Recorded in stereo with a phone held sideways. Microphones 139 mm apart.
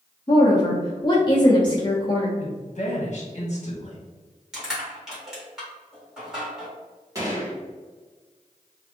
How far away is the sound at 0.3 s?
About 0.7 m.